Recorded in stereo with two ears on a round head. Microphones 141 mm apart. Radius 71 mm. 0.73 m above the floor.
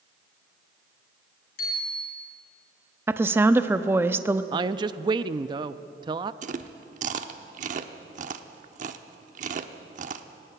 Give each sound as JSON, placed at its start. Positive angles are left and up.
{"t": 1.6, "sound": "a bicycle bell", "side_deg": 65, "distance_m": 6.5}
{"t": 3.1, "sound": "a woman speaking", "side_deg": -15, "distance_m": 0.7}
{"t": 4.5, "sound": "a woman speaking", "side_deg": -30, "distance_m": 0.5}
{"t": 6.4, "sound": "chewing", "side_deg": -50, "distance_m": 0.9}